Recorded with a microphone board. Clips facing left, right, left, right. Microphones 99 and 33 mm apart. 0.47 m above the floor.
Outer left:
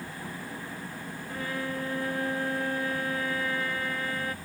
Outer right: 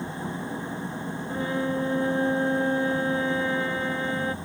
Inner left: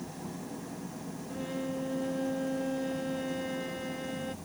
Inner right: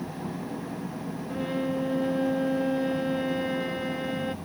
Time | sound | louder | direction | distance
0.0 | an engine running | outer right 7 dB, inner right 6 dB | 25° right (ahead or behind) | ?
1.3 | a violin | outer right 7 dB, inner right 7 dB | 25° right (ahead or behind) | ?